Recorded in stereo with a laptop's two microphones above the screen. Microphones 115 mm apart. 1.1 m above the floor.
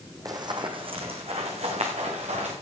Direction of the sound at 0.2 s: 30° right (ahead or behind).